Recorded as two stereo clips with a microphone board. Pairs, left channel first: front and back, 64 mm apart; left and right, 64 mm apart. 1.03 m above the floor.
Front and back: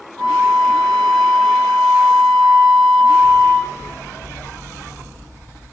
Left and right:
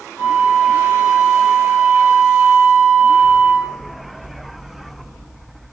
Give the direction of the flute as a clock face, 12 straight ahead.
9 o'clock.